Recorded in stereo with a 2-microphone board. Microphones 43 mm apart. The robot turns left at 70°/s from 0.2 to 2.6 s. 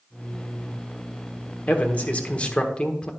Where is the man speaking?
105° left, 1.1 m; by 3.1 s 40° left, 1.1 m.